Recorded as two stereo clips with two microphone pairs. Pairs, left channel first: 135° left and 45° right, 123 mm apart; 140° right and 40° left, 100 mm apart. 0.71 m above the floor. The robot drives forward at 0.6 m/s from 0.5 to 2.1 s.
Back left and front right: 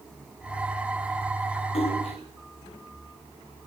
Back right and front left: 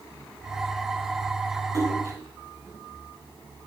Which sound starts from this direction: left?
A splash, at 1.7 s.